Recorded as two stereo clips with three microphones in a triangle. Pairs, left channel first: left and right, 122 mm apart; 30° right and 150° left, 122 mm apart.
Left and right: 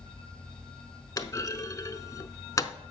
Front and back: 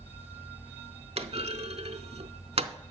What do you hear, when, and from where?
1.2 s a clunk: 145° left, 0.7 m